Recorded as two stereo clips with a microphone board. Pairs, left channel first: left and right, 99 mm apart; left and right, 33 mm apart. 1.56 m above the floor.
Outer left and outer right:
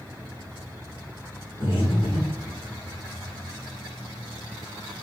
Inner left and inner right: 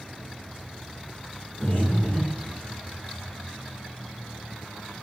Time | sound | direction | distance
1.6 | breathing | 70° left (ahead or behind) | 1.4 m